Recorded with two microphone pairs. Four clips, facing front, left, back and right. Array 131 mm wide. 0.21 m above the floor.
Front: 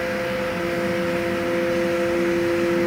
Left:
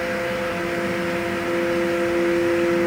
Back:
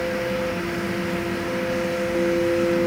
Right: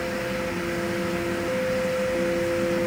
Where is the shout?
No shout in this recording.